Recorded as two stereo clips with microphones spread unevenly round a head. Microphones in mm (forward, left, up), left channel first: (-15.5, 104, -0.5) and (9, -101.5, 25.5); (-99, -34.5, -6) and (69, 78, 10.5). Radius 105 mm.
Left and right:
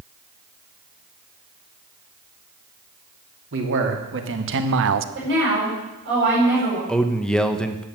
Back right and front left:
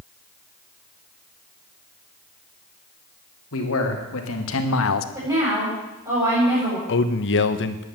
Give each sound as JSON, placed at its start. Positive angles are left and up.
{"t": 3.5, "sound": "a man speaking", "azimuth_deg": -115, "distance_m": 3.0}
{"t": 5.2, "sound": "a woman speaking", "azimuth_deg": -40, "distance_m": 8.5}
{"t": 6.9, "sound": "a man speaking", "azimuth_deg": -175, "distance_m": 1.1}